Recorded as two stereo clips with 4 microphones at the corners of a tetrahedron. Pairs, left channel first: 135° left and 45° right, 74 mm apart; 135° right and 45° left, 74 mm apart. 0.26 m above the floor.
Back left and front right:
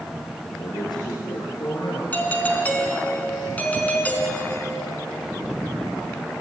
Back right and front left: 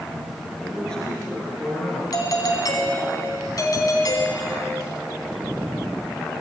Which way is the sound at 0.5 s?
145° left.